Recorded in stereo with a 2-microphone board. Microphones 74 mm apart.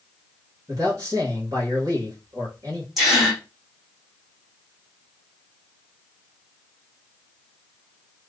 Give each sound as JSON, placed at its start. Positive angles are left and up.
{"t": 0.7, "sound": "a man speaking", "side_deg": -55, "distance_m": 1.6}
{"t": 3.0, "sound": "a gasp", "side_deg": 0, "distance_m": 1.6}